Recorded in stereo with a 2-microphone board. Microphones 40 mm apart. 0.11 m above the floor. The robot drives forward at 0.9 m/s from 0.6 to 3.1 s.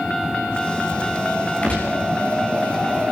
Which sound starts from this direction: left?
A gunshot, at 1.6 s.